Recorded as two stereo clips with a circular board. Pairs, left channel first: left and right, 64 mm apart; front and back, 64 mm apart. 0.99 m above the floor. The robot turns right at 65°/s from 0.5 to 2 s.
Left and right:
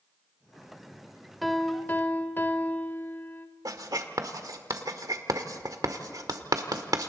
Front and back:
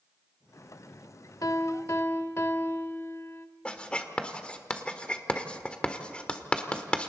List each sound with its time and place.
1.4 s a piano: straight ahead, 1.3 m; by 3.5 s 40° left, 1.3 m
3.6 s writing: 75° right, 1.5 m